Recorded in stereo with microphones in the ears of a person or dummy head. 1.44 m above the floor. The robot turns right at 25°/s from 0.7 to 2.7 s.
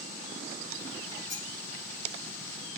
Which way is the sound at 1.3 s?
45° left (ahead or behind).